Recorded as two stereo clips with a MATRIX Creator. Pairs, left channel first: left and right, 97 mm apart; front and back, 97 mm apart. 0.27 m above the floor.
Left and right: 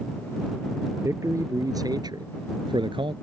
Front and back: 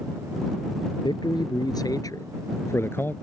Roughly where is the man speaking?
Ahead right.